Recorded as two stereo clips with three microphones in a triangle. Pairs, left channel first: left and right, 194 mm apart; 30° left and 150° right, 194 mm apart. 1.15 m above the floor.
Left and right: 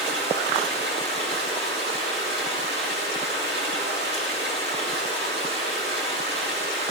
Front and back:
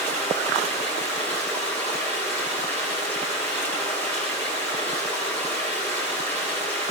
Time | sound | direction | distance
0.0 | running water | 55° right | 9.5 m